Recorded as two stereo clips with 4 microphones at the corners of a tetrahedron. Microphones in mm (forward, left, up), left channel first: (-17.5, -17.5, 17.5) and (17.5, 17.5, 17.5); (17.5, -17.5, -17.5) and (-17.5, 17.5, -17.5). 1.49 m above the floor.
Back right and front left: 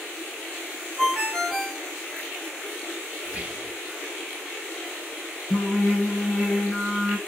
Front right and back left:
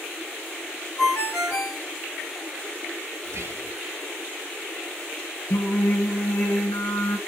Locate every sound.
1.0 s a ringtone: 20° right, 1.8 m
3.2 s whispering: 110° left, 1.1 m
5.5 s singing: 40° right, 1.7 m